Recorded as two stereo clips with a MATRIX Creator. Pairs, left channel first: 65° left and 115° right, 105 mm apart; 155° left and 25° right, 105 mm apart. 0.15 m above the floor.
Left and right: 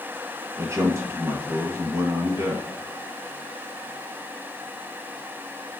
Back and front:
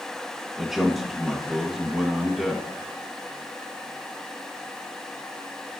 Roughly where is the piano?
No piano in this recording.